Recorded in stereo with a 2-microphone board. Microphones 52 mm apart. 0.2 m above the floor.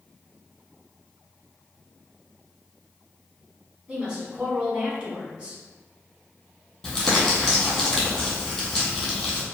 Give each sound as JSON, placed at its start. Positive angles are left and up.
{"t": 3.9, "sound": "a woman speaking", "side_deg": -20, "distance_m": 1.3}
{"t": 6.8, "sound": "crumpling", "side_deg": 20, "distance_m": 1.3}